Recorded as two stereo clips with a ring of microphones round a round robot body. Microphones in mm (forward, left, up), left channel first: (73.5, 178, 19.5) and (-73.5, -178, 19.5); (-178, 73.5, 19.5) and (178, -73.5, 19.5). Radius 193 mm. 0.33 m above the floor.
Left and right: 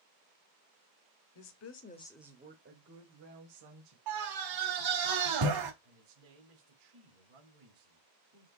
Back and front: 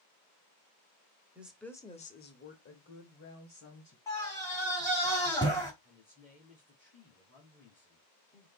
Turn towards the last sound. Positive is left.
turn(degrees=-120)